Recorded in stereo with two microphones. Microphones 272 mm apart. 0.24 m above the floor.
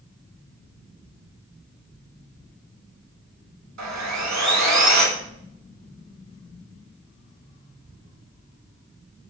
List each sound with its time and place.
3.8 s sawing: 75° right (ahead or behind), 0.6 m